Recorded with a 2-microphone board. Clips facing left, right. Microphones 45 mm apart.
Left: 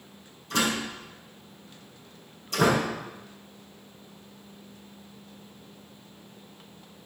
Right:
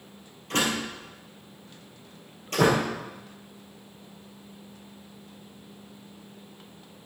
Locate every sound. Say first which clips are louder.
0.5 s a door slam: even; 55° right (ahead or behind), 4 m